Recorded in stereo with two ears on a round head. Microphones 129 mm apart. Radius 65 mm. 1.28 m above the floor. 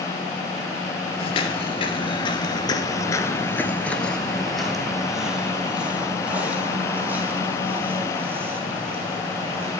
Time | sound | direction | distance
1.2 | footsteps | 40° left (ahead or behind) | 1.8 m